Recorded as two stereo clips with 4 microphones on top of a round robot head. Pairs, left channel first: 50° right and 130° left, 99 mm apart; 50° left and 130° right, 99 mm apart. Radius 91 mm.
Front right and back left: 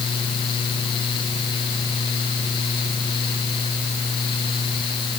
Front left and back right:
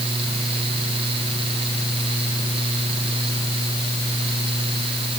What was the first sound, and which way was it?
Only background noise.